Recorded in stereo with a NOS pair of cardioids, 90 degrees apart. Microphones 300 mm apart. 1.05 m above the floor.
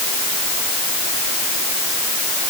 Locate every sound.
Only background noise.